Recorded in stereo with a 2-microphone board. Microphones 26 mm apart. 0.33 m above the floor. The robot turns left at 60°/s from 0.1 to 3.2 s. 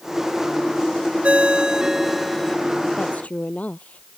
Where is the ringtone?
125° right; by 2.6 s 155° left.